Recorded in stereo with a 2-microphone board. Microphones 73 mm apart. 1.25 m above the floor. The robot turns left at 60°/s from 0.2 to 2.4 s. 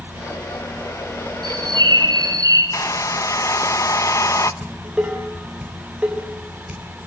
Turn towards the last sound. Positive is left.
turn(degrees=-15)  # may be behind; listen again after turning